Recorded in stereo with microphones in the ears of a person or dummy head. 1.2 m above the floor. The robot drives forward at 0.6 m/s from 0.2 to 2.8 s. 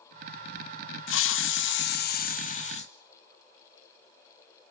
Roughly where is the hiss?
Left.